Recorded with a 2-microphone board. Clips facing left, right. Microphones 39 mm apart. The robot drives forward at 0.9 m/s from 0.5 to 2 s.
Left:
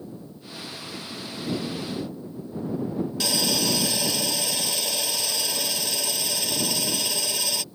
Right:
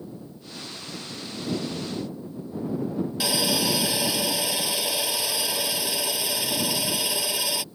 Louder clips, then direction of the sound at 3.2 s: Right 1 dB; 10° right (ahead or behind).